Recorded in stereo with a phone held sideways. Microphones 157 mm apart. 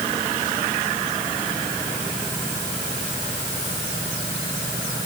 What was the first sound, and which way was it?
Only background noise.